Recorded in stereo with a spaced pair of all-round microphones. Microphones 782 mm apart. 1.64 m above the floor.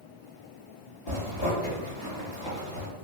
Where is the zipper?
35° left (ahead or behind), 1.2 m.